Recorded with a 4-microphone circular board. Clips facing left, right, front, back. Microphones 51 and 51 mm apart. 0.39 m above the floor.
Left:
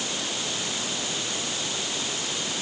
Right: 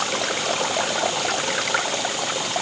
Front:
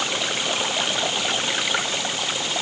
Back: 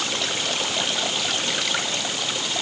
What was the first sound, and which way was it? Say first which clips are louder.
Running water: right 8 dB, front 1 dB; 80° right.